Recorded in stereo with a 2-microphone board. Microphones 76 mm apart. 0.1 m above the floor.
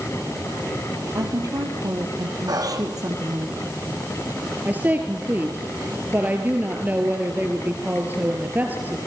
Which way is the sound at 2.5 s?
60° right (ahead or behind).